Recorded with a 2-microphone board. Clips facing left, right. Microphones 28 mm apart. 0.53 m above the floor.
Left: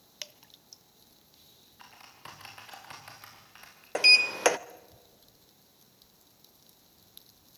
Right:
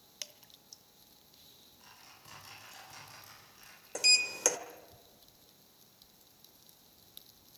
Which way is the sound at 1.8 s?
55° left (ahead or behind).